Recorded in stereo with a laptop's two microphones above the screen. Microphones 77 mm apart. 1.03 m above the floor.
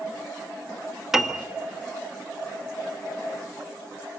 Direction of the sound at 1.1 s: 5° right (ahead or behind).